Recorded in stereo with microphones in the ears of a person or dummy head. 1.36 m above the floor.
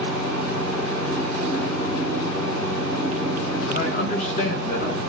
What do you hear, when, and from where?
0.0 s a fan: 10° right (ahead or behind), 1.5 m
3.7 s a man speaking: 45° left (ahead or behind), 0.8 m